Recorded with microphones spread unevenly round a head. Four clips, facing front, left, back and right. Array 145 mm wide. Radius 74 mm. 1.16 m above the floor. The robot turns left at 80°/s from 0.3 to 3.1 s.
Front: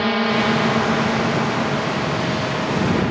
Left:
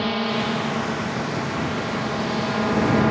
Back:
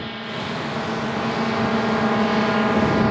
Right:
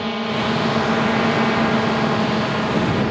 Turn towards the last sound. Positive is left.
turn(degrees=135)